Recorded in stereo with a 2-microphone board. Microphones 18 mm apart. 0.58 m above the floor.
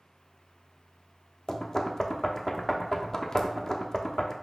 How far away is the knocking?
About 0.7 m.